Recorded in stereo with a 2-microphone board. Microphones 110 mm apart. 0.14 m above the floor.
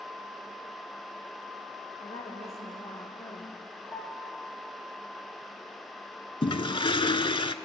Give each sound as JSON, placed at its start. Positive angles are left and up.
{"t": 2.0, "sound": "a woman speaking", "side_deg": 75, "distance_m": 6.5}
{"t": 3.9, "sound": "a piano", "side_deg": 20, "distance_m": 5.5}
{"t": 6.4, "sound": "a toilet flushing", "side_deg": 50, "distance_m": 0.7}